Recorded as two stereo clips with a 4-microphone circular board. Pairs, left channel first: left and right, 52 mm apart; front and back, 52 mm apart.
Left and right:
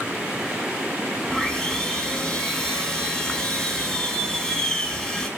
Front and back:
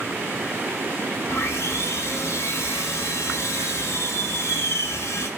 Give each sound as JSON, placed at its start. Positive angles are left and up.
{"t": 1.3, "sound": "sawing", "azimuth_deg": 10, "distance_m": 1.0}